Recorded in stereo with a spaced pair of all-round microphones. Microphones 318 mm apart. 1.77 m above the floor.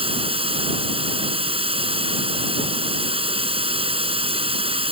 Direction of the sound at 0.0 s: 15° right (ahead or behind).